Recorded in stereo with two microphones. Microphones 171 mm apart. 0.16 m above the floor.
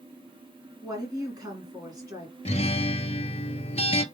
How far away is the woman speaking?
About 2.5 m.